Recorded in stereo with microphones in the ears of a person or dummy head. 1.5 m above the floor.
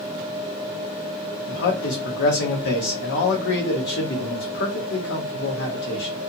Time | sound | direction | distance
1.5 | a man speaking | 60° left (ahead or behind) | 0.9 m